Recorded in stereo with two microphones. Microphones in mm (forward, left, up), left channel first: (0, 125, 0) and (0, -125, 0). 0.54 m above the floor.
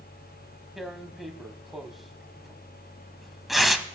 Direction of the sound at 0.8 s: Centre (ahead or behind).